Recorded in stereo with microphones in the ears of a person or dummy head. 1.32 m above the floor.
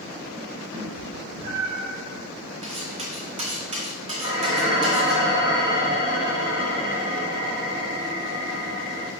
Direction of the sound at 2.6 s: 30° right (ahead or behind).